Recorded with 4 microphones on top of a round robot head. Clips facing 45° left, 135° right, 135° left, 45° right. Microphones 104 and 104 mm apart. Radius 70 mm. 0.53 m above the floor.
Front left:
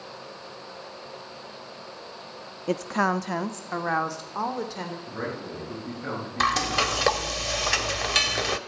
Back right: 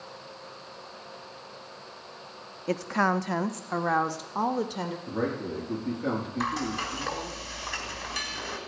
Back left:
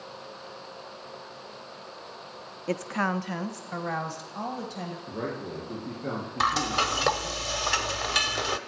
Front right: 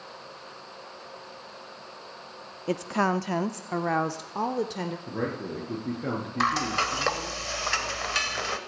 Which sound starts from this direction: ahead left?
Frying, at 6.4 s.